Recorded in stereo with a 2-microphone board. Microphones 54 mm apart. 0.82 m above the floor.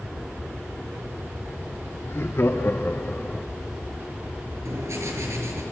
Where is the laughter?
60° left (ahead or behind), 2 m; by 3.5 s centre (ahead or behind), 0.7 m.